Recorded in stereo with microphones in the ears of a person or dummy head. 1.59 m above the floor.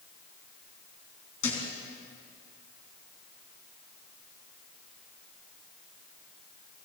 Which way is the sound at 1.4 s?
75° left (ahead or behind).